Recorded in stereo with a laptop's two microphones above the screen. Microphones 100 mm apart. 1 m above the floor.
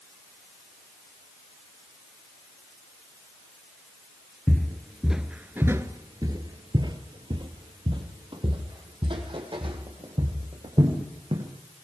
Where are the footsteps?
15° left (ahead or behind), 1.2 m; by 11.4 s 60° right (ahead or behind), 4.5 m.